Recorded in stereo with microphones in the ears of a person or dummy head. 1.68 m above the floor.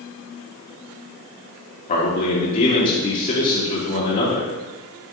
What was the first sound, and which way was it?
A man speaking, 35° left (ahead or behind).